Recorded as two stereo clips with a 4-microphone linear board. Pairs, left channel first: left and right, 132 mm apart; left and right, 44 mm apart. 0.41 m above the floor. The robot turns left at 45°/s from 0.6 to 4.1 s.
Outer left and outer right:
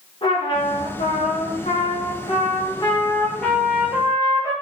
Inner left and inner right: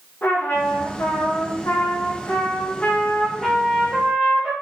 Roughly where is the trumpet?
Behind left.